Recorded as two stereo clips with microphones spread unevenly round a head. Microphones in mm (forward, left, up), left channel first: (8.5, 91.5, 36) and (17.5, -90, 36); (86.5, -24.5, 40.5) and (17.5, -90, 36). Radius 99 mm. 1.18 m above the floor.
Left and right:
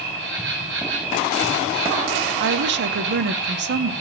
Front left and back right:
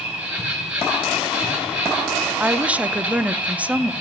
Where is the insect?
55° right, 3 m.